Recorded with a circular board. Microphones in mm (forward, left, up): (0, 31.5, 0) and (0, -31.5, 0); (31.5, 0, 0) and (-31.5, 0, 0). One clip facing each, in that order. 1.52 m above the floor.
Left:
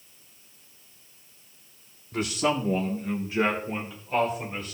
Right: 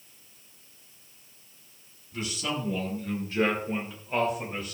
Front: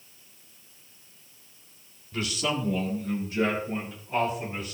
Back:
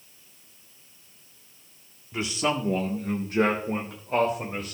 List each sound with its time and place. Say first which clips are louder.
2.1 s a man speaking: left 7 dB, back 2 dB; 110° left, 1.5 m; by 4.7 s 170° right, 3 m